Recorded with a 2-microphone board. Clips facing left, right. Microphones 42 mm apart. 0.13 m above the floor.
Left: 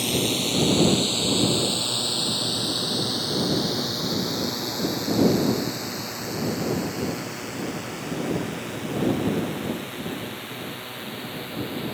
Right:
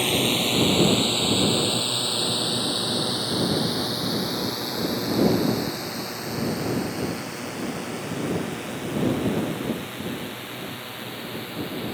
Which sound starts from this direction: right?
A drone, at 0.0 s.